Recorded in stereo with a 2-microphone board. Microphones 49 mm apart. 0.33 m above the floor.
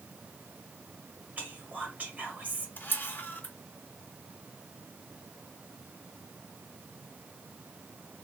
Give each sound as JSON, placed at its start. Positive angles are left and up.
{"t": 1.4, "sound": "whispering", "side_deg": -35, "distance_m": 1.1}
{"t": 2.8, "sound": "a camera shutter", "side_deg": 45, "distance_m": 1.1}